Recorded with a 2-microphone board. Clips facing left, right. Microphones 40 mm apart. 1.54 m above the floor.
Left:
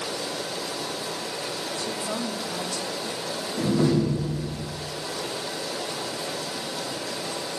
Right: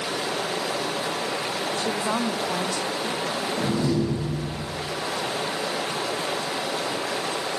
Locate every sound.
0.0 s running water: 45° right (ahead or behind), 0.7 m
1.8 s a woman speaking: 80° right, 1.0 m
3.6 s a door slam: 15° left (ahead or behind), 2.5 m